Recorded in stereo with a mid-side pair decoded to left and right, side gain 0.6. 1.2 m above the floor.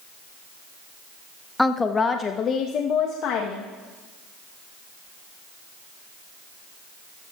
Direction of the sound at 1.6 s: 10° left.